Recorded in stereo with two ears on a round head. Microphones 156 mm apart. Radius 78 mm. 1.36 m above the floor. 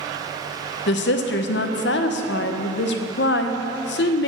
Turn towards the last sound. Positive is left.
turn(degrees=70)  # may be behind; listen again after turning